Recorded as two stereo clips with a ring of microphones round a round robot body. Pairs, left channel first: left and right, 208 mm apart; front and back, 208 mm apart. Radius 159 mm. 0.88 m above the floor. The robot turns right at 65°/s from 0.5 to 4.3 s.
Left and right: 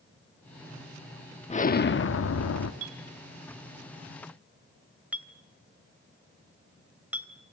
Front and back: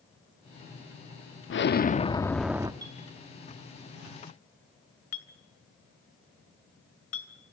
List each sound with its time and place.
1.5 s an explosion: 30° left, 1.1 m; by 2.7 s 110° left, 1.1 m
2.8 s a clink: 105° right, 2.5 m; by 7.3 s 5° right, 2.5 m